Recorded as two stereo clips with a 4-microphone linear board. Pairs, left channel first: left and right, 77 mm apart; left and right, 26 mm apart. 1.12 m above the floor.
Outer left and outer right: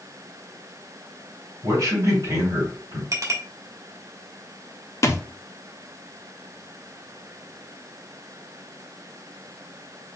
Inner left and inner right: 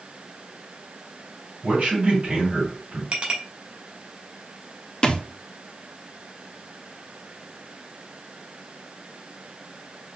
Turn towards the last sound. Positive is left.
turn(degrees=35)  # may be behind; listen again after turning